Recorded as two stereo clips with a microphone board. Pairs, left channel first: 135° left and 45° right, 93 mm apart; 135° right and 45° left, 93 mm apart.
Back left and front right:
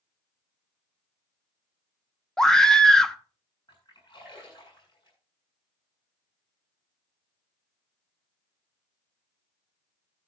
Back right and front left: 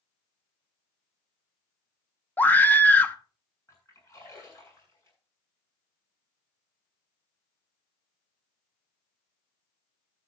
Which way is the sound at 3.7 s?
170° left.